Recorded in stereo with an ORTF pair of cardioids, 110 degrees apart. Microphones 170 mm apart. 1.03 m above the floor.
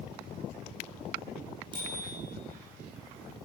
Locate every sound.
1.7 s a bicycle bell: 25° right, 9 m